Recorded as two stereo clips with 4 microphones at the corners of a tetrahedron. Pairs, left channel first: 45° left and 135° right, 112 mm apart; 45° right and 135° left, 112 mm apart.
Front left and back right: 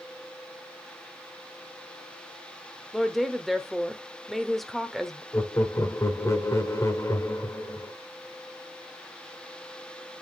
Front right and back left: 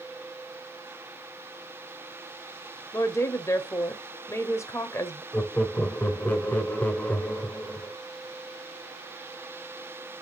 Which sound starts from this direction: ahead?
Laughter, at 5.3 s.